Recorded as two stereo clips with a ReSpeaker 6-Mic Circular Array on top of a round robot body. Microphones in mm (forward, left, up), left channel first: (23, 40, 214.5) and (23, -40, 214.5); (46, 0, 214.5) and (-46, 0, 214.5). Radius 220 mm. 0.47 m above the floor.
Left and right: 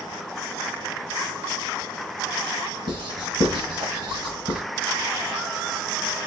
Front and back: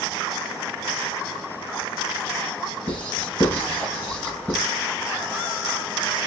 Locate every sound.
2.9 s writing: 75° right, 1.6 m